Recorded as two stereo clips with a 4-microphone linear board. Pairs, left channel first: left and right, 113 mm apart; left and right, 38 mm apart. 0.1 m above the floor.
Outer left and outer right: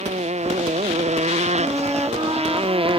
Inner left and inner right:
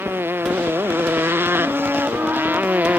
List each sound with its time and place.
0.0 s a motorcycle: 80° right; by 3.0 s 50° right (ahead or behind)
1.6 s a flute: 20° right (ahead or behind)